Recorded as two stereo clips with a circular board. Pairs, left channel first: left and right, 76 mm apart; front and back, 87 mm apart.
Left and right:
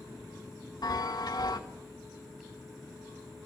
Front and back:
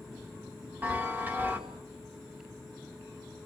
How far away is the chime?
About 2 m.